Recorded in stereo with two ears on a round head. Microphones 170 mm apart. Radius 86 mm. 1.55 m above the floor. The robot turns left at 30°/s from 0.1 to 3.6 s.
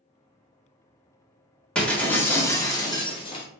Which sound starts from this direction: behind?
Breaking glass, at 1.8 s.